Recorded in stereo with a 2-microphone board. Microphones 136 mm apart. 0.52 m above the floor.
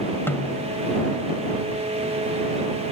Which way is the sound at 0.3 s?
15° left (ahead or behind).